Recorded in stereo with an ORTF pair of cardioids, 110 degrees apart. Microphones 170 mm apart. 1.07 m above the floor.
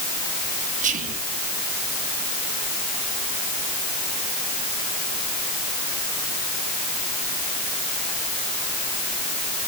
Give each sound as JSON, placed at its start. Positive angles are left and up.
{"t": 0.8, "sound": "whispering", "azimuth_deg": -50, "distance_m": 1.5}